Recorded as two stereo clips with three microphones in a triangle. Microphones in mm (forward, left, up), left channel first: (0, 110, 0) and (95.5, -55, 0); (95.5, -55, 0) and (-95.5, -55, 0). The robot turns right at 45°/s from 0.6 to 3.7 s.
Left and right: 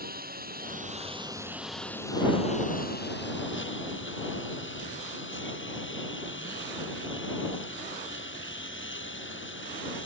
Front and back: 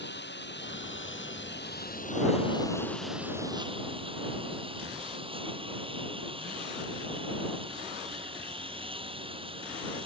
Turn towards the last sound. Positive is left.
turn(degrees=120)